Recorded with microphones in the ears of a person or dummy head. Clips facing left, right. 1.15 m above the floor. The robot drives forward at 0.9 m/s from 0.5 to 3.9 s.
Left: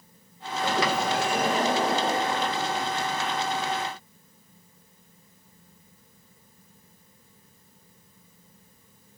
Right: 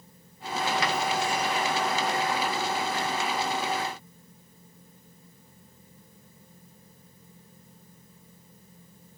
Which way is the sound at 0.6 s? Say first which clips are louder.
Left 3 dB; 70° left (ahead or behind).